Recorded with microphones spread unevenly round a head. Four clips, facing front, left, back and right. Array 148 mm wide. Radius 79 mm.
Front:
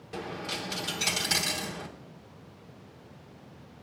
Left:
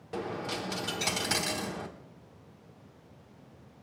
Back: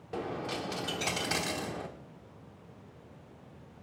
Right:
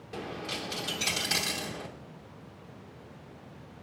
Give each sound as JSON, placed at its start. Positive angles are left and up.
{"t": 0.1, "sound": "a dropped coin", "azimuth_deg": 140, "distance_m": 0.9}